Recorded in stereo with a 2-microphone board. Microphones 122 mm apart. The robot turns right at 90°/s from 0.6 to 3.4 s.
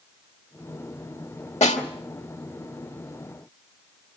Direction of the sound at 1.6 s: 70° left (ahead or behind).